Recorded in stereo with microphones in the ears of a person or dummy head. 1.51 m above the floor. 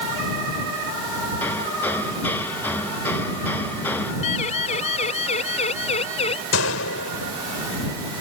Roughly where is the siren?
Left.